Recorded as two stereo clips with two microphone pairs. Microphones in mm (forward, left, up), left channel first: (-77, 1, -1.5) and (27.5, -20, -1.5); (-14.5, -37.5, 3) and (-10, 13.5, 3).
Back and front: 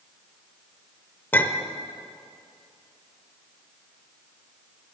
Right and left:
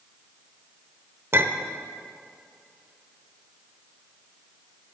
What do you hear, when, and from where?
1.3 s a clink: 105° left, 0.8 m